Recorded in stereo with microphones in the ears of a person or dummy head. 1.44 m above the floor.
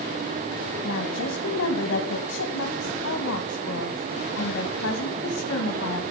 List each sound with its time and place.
0.8 s a woman speaking: 80° left, 1.7 m